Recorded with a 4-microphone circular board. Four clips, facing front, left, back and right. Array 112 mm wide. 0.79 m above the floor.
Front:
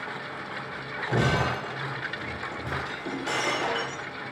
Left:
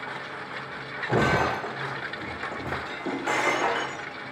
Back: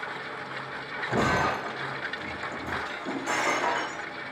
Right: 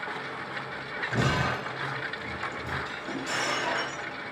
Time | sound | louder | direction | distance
1.1 | breaking glass | left 5 dB, back 1 dB | 85° left | 6 m